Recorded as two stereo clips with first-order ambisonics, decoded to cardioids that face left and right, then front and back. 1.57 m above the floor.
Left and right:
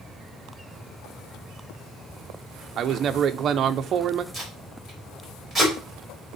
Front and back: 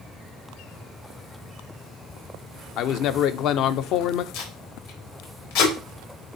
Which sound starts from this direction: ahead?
Tape being pulled, at 4.3 s.